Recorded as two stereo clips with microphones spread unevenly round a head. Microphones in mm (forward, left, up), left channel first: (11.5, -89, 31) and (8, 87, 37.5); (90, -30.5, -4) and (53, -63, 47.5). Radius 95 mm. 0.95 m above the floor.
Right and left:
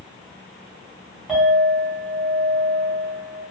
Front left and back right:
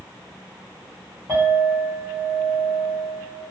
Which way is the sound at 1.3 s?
Straight behind.